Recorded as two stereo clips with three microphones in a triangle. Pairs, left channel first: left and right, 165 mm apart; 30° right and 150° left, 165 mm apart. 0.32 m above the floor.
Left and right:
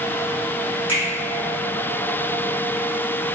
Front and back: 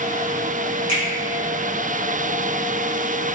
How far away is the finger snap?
About 1.2 m.